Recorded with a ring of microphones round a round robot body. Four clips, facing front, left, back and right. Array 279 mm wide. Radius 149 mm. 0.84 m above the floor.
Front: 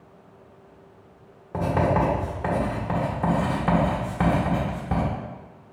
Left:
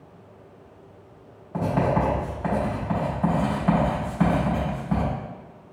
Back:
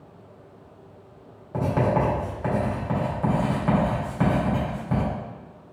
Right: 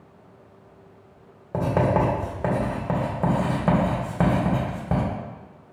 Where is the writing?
75° right, 2 m.